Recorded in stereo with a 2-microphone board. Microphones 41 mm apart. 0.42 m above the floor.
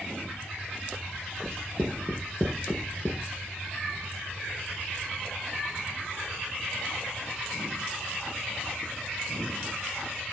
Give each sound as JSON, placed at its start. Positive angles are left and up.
{"t": 1.4, "sound": "writing", "side_deg": 25, "distance_m": 4.5}